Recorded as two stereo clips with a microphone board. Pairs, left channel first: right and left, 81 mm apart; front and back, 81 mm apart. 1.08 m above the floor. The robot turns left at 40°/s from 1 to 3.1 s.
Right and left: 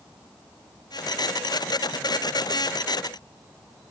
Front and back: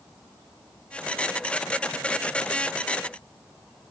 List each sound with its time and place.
Only background noise.